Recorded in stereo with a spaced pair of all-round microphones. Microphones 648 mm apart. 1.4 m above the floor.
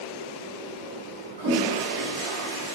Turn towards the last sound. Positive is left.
turn(degrees=-40)  # may be behind; listen again after turning